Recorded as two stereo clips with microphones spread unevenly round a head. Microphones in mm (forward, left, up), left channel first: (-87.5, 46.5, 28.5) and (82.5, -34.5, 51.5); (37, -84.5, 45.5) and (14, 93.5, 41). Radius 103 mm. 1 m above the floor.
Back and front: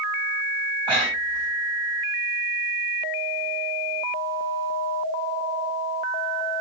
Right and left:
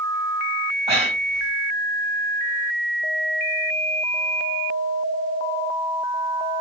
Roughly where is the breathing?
Ahead left.